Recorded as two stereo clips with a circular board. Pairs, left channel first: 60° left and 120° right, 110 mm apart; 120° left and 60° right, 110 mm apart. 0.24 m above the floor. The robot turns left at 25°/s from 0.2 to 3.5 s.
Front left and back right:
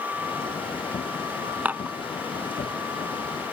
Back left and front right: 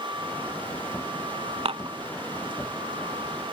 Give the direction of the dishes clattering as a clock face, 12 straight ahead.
2 o'clock.